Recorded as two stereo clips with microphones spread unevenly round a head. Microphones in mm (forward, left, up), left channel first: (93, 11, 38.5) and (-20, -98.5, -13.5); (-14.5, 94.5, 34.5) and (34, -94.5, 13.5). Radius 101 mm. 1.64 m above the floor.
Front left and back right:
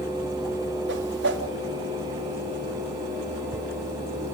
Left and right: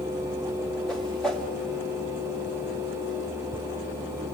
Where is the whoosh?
170° right, 2 m.